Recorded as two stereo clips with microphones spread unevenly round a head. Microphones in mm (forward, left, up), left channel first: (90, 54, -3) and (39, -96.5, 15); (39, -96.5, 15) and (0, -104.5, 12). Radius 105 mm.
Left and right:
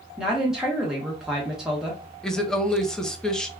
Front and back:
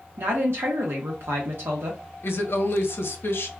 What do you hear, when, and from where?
0.2 s a woman speaking: 160° left, 0.7 m
2.2 s a woman speaking: 15° right, 0.8 m